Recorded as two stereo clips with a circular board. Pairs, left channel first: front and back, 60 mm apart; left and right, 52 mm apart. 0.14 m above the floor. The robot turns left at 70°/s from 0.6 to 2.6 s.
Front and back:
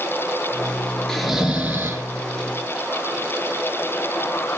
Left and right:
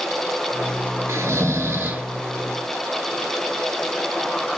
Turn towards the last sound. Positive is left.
turn(degrees=175)